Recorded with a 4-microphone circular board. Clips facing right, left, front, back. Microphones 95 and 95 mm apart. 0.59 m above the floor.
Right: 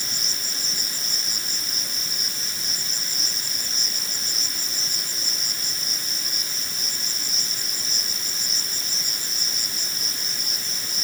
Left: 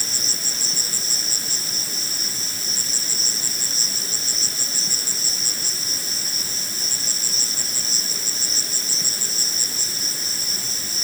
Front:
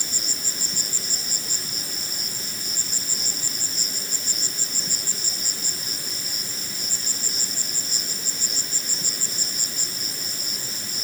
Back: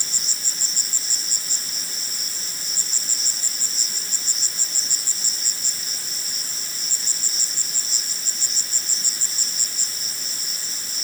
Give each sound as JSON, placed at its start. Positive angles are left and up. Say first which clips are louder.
{"t": 0.0, "sound": "an insect", "louder": "left 2 dB, front 3 dB", "azimuth_deg": 35}